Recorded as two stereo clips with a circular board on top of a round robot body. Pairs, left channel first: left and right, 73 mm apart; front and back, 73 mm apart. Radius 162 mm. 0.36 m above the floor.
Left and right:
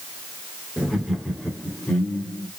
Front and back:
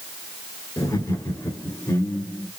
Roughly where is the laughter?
Ahead.